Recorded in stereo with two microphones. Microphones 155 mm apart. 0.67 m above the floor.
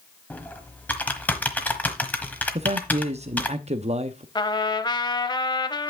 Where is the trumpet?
30° left (ahead or behind), 0.7 m.